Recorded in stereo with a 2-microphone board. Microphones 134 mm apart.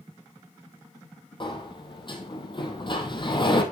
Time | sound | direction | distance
1.4 | a sliding door | 35° left (ahead or behind) | 1.3 m